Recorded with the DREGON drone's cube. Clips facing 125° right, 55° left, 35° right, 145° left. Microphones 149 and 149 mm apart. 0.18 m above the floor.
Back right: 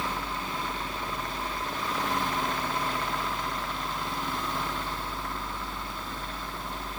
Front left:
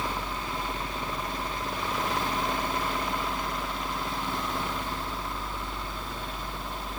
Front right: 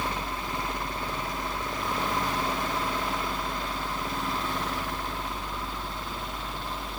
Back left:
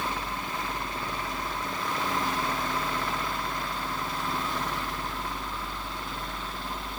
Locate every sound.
Only background noise.